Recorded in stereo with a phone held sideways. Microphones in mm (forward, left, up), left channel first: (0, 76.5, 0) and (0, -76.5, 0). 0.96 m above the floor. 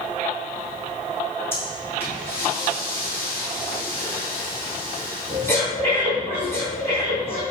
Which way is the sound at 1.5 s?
15° left (ahead or behind).